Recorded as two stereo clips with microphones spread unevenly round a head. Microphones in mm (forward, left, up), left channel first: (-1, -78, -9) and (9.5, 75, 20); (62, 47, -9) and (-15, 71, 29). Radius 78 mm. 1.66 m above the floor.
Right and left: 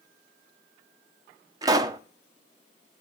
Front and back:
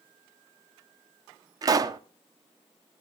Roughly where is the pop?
Behind left.